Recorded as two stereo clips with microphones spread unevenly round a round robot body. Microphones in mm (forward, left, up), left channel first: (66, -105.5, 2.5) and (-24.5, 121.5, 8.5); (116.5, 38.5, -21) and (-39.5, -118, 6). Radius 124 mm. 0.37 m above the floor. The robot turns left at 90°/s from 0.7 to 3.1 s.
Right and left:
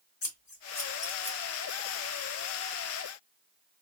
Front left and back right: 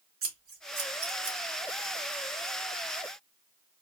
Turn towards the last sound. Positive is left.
turn(degrees=30)